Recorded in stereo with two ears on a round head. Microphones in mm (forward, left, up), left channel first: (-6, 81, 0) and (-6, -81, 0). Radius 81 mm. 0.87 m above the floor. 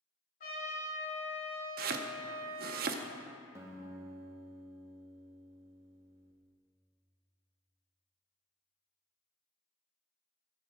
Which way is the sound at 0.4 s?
50° left (ahead or behind).